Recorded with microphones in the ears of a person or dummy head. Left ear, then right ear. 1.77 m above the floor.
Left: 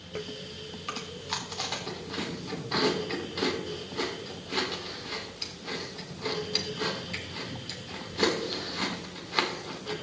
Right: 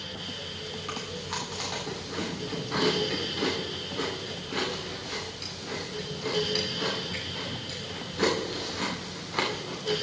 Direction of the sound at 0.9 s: 25° left (ahead or behind).